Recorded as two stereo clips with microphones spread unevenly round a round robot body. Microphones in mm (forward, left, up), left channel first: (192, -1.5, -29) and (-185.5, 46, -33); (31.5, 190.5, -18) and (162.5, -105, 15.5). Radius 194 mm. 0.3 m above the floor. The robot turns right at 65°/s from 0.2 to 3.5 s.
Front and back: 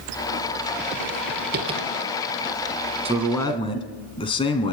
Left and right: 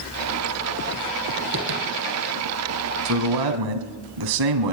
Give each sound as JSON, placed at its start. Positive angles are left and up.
{"t": 1.5, "sound": "tapping", "azimuth_deg": -120, "distance_m": 3.0}
{"t": 3.0, "sound": "a man speaking", "azimuth_deg": -115, "distance_m": 2.5}